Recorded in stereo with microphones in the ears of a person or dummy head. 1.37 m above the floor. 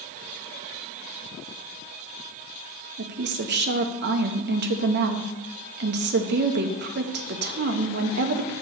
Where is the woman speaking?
50° right (ahead or behind), 0.7 m.